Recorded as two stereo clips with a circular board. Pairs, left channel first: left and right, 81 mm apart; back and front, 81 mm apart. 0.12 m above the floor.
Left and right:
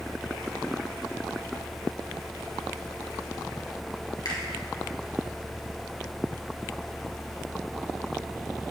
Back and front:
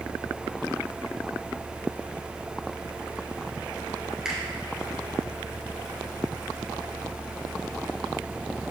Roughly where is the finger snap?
Left.